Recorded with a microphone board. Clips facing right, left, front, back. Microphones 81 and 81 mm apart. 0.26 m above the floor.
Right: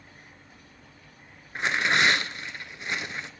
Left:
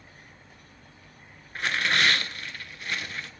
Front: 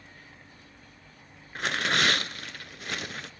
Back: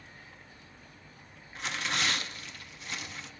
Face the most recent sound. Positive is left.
turn(degrees=-20)